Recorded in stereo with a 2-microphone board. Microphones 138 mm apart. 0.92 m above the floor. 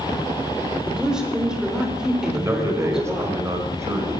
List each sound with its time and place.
0.9 s a woman speaking: 5° right (ahead or behind), 3.5 m
2.3 s a man speaking: 20° right (ahead or behind), 4 m